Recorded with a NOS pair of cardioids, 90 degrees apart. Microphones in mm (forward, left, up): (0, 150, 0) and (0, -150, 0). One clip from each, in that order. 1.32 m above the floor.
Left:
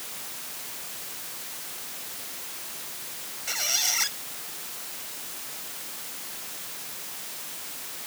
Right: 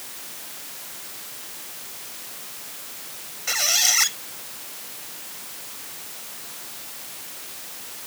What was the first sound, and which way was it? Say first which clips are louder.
A squeak: right 6 dB; 40° right.